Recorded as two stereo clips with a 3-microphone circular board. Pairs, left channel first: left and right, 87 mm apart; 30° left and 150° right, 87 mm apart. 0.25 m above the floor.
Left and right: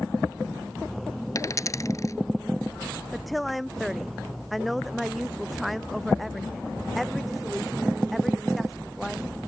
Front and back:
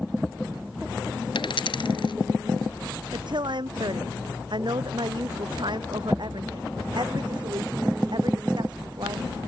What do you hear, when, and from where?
1.4 s a dropped coin: 40° left
3.1 s a woman speaking: straight behind